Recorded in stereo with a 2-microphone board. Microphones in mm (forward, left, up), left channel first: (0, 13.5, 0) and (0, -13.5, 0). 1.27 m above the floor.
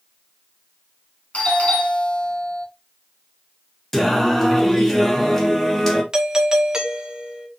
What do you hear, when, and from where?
1.3 s a doorbell: 60° left (ahead or behind), 2.5 m
3.9 s singing: 15° left (ahead or behind), 1.2 m
6.1 s a doorbell: 25° right (ahead or behind), 0.8 m